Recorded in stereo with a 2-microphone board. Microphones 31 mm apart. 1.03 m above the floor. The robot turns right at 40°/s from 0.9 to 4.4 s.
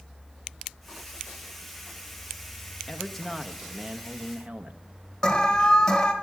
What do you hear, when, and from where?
2.9 s a man speaking: 165° left, 1.2 m; by 4.8 s 130° right, 1.2 m
5.2 s an alarm: 15° left (ahead or behind), 1.7 m